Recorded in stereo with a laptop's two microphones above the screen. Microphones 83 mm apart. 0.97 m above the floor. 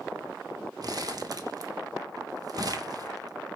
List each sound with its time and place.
0.8 s crumpling: 50° right (ahead or behind), 0.5 m